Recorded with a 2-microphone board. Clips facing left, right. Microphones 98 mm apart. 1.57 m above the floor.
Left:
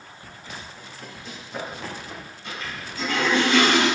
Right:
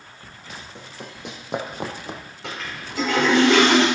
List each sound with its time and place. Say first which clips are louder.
0.8 s running footsteps: right 2 dB; 70° right (ahead or behind), 4.5 m; by 2.2 s 60° right (ahead or behind), 3 m
2.4 s a toilet flushing: right 2 dB; 85° right, 6.5 m